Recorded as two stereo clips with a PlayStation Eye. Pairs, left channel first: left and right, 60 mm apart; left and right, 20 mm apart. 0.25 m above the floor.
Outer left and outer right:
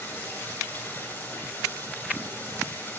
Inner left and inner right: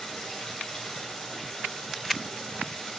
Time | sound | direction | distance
0.0 | running water | 30° left (ahead or behind) | 9 m